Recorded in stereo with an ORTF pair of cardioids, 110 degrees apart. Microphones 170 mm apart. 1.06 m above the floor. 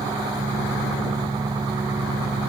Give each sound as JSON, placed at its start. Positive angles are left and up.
{"t": 0.0, "sound": "an engine running", "azimuth_deg": -20}